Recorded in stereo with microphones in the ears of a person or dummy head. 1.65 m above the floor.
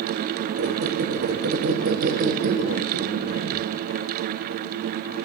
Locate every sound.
0.6 s a squeak: 50° right (ahead or behind), 1.0 m